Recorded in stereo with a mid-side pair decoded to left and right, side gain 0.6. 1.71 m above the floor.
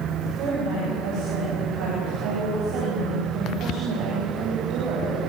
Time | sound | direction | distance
0.2 | a woman speaking | 65° right | 10 m